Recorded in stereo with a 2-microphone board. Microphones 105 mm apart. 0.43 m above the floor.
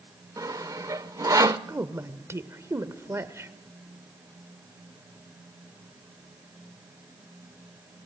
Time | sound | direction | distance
0.4 | sawing | 35° right (ahead or behind) | 0.6 m
1.7 | a woman speaking | 25° right (ahead or behind) | 1.1 m